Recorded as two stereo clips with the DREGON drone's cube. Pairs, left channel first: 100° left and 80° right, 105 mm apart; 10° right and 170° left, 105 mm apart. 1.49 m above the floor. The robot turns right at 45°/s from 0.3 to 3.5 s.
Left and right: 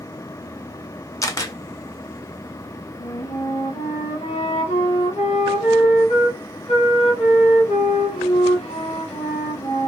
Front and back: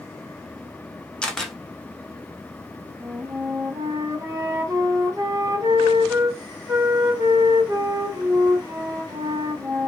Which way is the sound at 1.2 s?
65° left.